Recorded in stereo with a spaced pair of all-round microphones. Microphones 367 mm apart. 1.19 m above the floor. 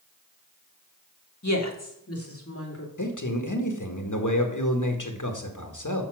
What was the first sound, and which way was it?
A woman speaking, 50° left (ahead or behind).